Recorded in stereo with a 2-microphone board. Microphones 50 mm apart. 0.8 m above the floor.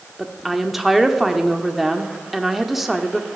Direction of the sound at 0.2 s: 5° right (ahead or behind).